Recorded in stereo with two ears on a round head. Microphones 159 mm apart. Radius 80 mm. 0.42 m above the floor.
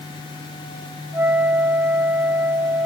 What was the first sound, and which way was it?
A flute, 10° right (ahead or behind).